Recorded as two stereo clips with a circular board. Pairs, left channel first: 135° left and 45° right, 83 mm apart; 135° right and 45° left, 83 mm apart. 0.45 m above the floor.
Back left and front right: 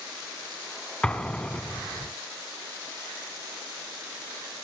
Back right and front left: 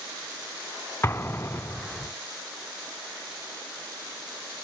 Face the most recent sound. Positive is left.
turn(degrees=-160)